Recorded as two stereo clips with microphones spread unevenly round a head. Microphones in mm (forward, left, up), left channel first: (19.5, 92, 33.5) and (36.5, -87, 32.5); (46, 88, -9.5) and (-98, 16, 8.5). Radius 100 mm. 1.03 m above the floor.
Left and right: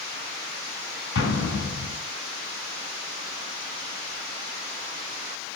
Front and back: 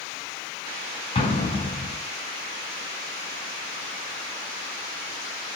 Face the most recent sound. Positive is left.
turn(degrees=80)